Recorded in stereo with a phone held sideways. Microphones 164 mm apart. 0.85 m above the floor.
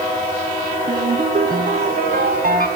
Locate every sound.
0.9 s a ringtone: 65° right (ahead or behind), 3 m